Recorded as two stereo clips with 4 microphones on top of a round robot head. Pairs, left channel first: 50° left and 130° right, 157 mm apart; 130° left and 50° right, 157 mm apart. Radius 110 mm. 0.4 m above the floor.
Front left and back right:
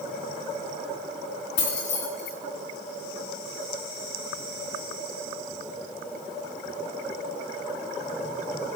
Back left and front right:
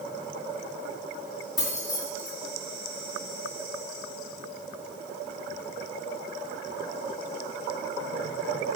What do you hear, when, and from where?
1.6 s keys jangling: 60° left, 4 m